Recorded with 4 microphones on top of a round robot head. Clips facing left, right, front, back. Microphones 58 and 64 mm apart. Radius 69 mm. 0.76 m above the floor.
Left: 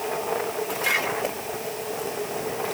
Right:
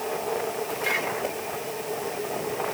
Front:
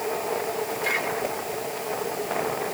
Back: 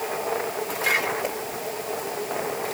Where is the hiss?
No hiss in this recording.